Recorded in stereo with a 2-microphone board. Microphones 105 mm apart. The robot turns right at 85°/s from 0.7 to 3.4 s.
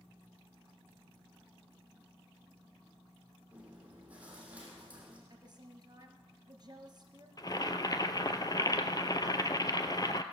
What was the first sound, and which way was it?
Chewing, 15° right (ahead or behind).